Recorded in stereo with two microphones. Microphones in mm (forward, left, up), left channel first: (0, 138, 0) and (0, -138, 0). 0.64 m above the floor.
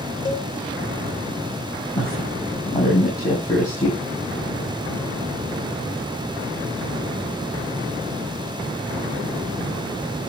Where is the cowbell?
45° left (ahead or behind), 3 m.